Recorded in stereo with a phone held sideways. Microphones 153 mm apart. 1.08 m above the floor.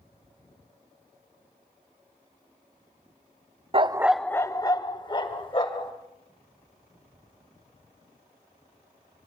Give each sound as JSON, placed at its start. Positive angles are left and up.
{"t": 3.7, "sound": "a dog barking", "side_deg": -35, "distance_m": 0.5}